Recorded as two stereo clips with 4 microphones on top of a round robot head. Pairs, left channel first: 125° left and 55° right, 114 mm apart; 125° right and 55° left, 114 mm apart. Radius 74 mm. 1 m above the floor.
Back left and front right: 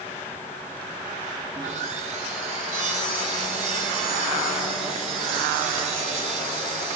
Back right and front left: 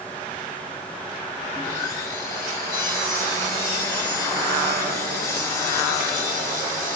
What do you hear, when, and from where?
1.5 s sawing: 65° right, 0.7 m